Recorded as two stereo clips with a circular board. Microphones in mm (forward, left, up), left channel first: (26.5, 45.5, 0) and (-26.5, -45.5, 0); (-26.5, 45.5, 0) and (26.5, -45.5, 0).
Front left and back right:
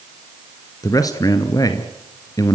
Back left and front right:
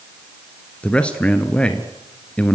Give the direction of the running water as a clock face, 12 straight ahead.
I don't hear running water.